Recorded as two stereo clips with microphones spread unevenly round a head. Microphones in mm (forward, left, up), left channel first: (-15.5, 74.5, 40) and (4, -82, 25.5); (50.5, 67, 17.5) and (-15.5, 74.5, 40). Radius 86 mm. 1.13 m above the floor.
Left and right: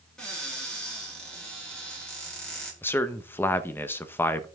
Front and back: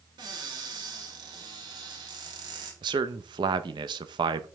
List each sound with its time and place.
0.2 s a cupboard door: 175° right, 4.5 m
2.8 s a man speaking: 175° left, 0.9 m